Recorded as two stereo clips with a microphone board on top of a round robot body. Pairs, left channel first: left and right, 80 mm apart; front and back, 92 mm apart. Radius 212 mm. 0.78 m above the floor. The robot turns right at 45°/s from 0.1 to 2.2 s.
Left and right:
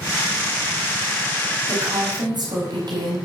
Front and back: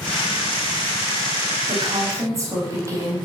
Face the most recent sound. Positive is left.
turn(degrees=-125)